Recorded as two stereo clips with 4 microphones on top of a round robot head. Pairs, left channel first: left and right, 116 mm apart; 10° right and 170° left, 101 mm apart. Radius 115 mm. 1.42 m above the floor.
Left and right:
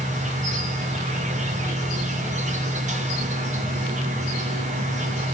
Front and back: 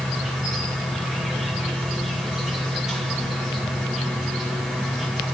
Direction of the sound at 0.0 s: 100° right.